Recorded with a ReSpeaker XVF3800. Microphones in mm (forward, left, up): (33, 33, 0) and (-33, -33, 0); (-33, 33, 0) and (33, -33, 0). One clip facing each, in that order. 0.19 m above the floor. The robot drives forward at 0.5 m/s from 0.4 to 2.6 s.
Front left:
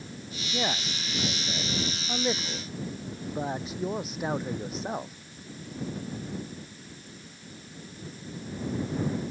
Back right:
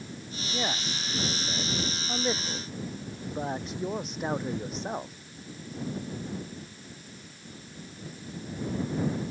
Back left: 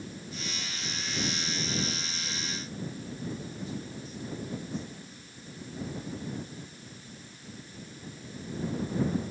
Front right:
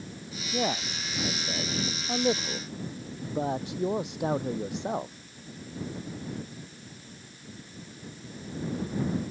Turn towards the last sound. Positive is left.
turn(degrees=-45)